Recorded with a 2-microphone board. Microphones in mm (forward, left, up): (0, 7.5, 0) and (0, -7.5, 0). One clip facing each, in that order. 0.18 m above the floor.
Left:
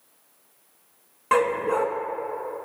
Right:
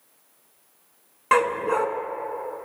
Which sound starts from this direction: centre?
A dog barking, at 1.3 s.